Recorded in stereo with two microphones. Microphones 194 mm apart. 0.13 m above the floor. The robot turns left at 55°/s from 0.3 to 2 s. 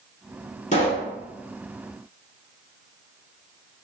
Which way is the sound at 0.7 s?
40° left (ahead or behind).